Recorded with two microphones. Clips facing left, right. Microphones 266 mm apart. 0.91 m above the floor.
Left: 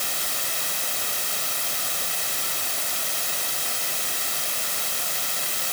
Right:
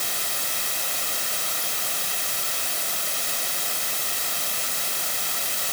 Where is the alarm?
I don't hear an alarm.